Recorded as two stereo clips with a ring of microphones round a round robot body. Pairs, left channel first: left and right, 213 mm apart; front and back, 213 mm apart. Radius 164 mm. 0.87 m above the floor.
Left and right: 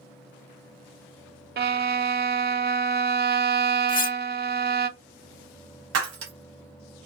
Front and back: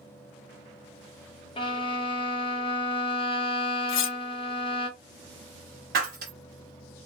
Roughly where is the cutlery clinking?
Ahead left.